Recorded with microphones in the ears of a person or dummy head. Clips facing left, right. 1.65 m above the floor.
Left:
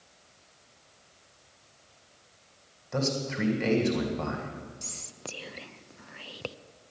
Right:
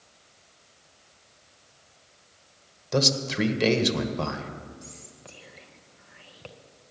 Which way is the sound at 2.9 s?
50° right (ahead or behind).